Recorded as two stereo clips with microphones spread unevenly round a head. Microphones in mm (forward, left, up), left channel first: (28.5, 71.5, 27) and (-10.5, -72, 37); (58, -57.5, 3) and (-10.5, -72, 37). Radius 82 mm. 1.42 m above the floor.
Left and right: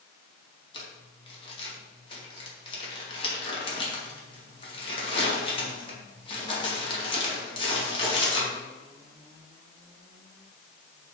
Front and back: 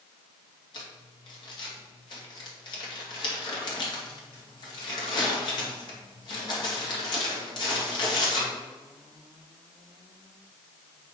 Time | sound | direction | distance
0.7 | crumpling | 20° left | 2.5 m